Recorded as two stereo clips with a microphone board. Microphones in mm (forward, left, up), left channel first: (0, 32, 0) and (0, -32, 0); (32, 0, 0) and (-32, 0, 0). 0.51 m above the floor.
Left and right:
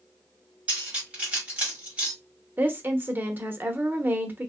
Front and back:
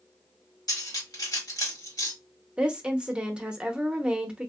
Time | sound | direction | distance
0.7 | cutlery clinking | 20° right | 1.6 m
2.6 | a woman speaking | 115° right | 0.7 m